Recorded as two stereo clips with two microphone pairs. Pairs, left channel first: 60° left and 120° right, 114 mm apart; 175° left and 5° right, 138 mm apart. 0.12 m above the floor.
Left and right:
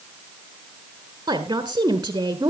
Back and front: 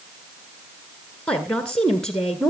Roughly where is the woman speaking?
Right.